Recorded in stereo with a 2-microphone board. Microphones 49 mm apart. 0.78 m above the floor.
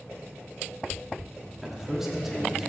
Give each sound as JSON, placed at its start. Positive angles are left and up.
{"t": 1.6, "sound": "a man speaking", "side_deg": -10, "distance_m": 1.6}